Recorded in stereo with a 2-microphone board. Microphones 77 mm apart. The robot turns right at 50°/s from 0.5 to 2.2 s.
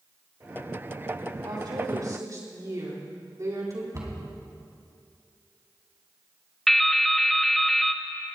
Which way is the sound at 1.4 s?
85° right.